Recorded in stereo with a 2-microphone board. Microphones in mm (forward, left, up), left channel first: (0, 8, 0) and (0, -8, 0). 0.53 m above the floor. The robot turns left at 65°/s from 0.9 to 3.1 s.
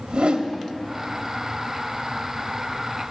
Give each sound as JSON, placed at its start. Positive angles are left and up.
{"t": 0.1, "sound": "a whoosh", "side_deg": -65, "distance_m": 0.9}